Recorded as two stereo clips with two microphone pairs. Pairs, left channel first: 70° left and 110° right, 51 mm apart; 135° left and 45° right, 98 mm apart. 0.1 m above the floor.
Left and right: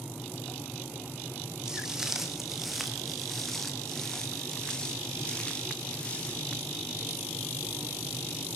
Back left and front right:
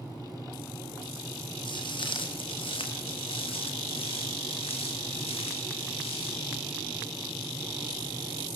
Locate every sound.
1.6 s footsteps: 170° left, 4 m; by 6.6 s 135° left, 6.5 m